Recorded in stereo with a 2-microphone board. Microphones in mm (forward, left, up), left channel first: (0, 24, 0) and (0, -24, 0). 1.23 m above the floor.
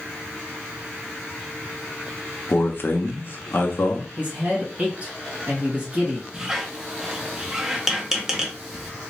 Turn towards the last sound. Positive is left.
turn(degrees=-10)  # may be behind; listen again after turning